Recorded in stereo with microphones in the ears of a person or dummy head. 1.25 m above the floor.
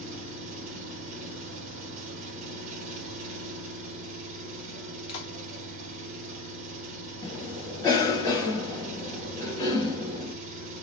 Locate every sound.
0.0 s an engine running: 50° right (ahead or behind), 1.7 m
5.1 s a clap: 30° left (ahead or behind), 1.3 m
7.2 s a cough: 20° left (ahead or behind), 1.7 m